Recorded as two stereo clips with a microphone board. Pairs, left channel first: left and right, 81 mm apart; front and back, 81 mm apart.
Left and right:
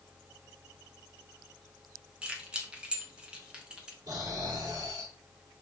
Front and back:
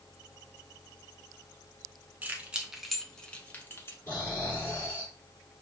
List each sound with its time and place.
2.2 s keys jangling: 145° right, 1.0 m; by 4.0 s 20° right, 1.2 m
4.1 s snoring: 65° right, 3.5 m